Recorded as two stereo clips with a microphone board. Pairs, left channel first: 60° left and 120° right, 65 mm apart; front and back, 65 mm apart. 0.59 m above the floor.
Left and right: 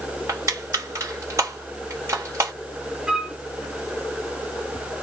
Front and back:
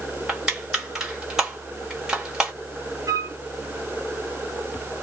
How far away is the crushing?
About 2.0 m.